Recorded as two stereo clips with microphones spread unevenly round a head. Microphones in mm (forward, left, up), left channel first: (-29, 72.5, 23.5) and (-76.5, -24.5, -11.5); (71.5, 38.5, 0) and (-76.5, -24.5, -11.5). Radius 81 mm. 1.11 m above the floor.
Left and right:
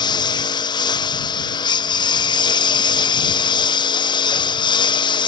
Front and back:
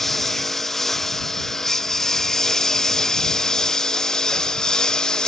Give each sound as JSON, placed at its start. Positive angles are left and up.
{"t": 0.0, "sound": "a lawn mower", "azimuth_deg": 110}